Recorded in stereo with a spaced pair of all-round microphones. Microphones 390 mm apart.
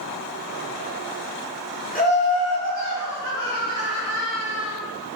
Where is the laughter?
25° left (ahead or behind), 0.8 m; by 4.8 s 65° left (ahead or behind), 2.5 m.